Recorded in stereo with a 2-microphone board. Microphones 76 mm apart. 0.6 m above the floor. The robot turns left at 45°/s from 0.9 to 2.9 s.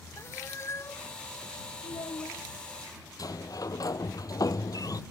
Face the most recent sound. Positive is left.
turn(degrees=50)  # may be behind; listen again after turning